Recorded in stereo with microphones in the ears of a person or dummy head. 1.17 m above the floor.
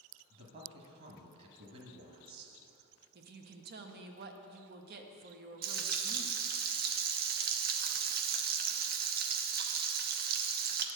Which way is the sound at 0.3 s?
45° right (ahead or behind).